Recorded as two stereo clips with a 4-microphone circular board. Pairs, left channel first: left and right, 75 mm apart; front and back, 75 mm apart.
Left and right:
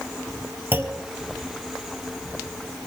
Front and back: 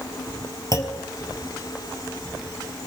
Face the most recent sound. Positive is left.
turn(degrees=-35)